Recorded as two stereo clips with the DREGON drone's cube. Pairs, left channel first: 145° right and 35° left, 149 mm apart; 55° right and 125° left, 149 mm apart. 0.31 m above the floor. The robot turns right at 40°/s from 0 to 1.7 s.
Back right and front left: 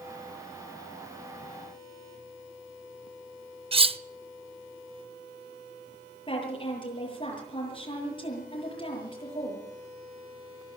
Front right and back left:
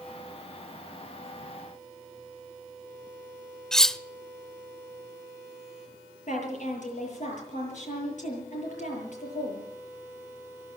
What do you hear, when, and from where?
3.7 s cutlery clinking: 30° left, 0.5 m
6.3 s a woman speaking: 90° right, 8.5 m